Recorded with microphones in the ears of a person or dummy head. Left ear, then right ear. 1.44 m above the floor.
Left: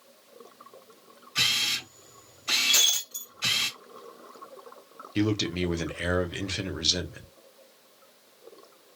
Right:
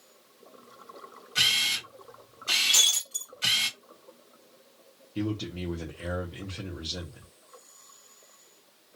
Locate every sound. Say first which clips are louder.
1.4 s a camera shutter: right 1 dB; centre (ahead or behind), 1.4 m
2.7 s breaking glass: even; centre (ahead or behind), 2 m
5.2 s a man speaking: left 6 dB; 60° left (ahead or behind), 0.7 m